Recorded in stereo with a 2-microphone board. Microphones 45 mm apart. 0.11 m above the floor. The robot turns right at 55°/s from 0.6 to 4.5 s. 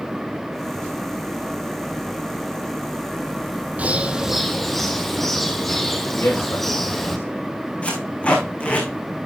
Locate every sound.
3.8 s a bird: 35° right, 1.5 m; by 7.2 s 5° left, 1.5 m
6.2 s a man speaking: 60° left (ahead or behind), 6 m
7.8 s tape being pulled: 30° left (ahead or behind), 4.5 m